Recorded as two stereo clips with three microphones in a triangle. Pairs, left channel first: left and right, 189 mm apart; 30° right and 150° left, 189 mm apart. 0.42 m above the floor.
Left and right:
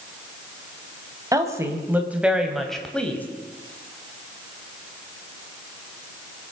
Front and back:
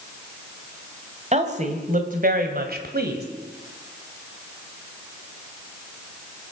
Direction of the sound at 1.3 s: 160° right.